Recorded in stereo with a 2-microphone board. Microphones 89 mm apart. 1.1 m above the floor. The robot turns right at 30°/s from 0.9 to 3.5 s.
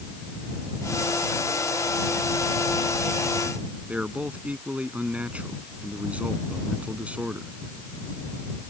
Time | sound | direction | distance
3.9 | a man speaking | 15° right (ahead or behind) | ?